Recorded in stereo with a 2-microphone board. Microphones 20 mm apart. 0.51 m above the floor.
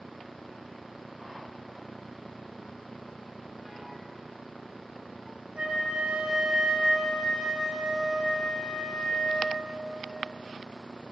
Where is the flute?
45° right (ahead or behind), 4.5 m.